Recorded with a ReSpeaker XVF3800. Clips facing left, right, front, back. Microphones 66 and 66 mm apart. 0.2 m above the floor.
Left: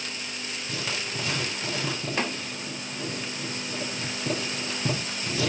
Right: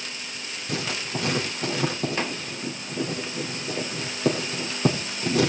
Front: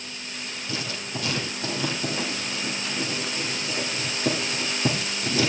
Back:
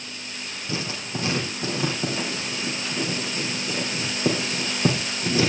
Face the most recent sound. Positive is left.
turn(degrees=-115)